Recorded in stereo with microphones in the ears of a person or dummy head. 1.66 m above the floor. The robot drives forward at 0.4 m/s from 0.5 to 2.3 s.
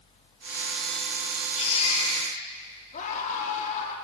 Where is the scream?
45° left (ahead or behind), 4.5 m.